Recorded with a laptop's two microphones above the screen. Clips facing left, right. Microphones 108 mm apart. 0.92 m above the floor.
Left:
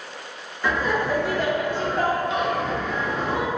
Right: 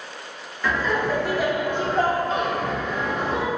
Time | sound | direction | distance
0.6 | laughter | 15° left (ahead or behind) | 1.0 m